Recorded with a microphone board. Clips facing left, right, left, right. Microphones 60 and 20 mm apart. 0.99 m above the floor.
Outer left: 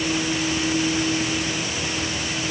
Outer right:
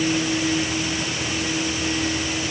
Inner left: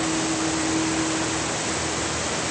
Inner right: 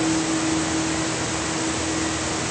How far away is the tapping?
I don't hear tapping.